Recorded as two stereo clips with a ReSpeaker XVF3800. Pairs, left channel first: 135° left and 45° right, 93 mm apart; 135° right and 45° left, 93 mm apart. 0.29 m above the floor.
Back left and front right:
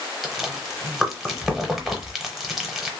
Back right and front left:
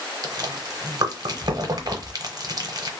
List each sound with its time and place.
0.2 s chewing: 45° left, 0.7 m